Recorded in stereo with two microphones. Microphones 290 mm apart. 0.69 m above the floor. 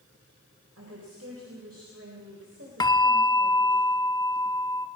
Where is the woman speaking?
55° right (ahead or behind), 3.5 m.